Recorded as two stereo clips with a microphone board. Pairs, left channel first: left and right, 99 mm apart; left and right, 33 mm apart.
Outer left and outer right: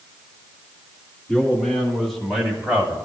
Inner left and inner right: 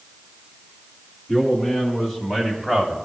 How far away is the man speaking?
About 3.5 m.